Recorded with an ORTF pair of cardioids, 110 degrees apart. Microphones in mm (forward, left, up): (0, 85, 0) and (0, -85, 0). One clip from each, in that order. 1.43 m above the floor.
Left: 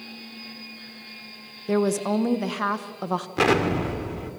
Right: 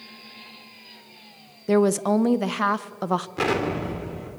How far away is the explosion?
About 3 m.